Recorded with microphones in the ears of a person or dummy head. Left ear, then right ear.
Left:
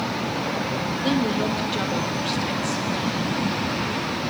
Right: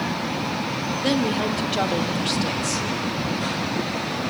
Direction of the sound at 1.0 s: 5° right (ahead or behind).